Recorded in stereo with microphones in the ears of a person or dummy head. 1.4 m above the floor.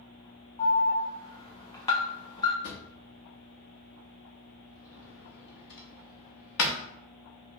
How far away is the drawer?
About 1.1 m.